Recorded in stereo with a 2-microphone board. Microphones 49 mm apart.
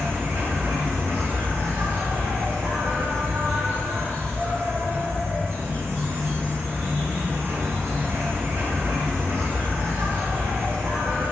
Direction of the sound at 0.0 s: 55° right (ahead or behind).